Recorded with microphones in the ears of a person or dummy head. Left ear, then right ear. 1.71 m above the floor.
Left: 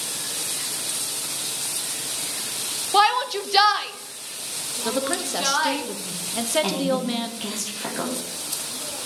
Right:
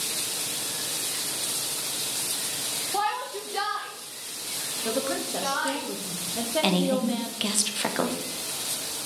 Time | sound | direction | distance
2.9 | a shout | 45° left (ahead or behind) | 0.5 m
4.8 | a woman speaking | 25° left (ahead or behind) | 0.8 m
6.6 | a woman speaking | 25° right (ahead or behind) | 1.0 m